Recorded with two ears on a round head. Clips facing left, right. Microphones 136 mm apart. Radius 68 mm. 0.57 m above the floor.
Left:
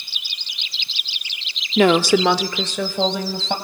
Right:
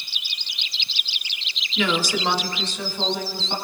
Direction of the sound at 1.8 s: 35° left (ahead or behind).